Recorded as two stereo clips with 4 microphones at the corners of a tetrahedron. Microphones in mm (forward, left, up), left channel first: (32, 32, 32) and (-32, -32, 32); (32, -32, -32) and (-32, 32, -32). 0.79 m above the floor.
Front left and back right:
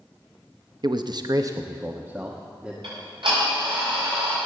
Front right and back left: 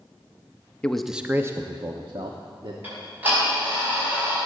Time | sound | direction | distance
0.8 | a man speaking | 120° right | 0.7 m
2.8 | ticking | 155° right | 6 m